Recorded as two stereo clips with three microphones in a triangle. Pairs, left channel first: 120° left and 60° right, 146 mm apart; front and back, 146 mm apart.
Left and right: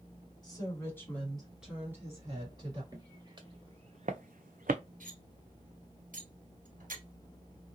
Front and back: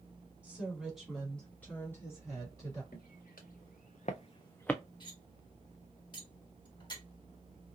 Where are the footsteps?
5° left, 1.2 m; by 4.8 s 85° right, 0.6 m.